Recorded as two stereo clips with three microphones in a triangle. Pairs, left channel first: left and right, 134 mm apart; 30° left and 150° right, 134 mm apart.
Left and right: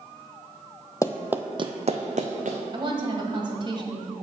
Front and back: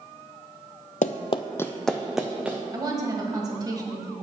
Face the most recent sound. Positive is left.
turn(degrees=-110)